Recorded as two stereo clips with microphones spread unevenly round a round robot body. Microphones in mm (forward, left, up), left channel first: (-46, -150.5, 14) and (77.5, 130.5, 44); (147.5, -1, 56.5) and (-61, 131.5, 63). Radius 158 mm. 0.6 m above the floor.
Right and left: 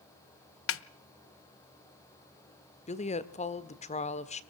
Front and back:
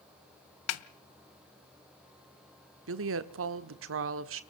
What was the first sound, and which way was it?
A snare drum, 65° right.